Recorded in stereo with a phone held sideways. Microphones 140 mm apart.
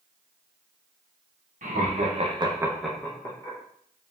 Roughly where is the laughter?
Right.